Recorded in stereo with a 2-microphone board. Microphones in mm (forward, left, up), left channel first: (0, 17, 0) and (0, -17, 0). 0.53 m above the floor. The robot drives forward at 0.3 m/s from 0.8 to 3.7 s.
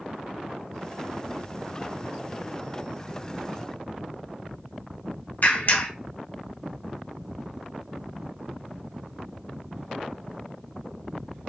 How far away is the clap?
About 1.3 m.